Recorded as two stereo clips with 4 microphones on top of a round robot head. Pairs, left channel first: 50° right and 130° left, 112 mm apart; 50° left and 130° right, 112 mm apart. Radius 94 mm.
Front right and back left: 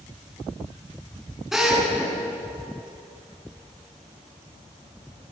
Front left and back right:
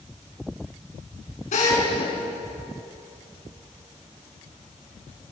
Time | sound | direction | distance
1.5 | a drill | 40° left | 7 m